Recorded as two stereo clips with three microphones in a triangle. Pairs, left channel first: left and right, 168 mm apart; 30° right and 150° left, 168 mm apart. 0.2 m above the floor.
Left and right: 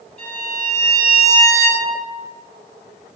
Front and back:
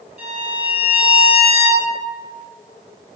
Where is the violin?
120° left, 0.7 m.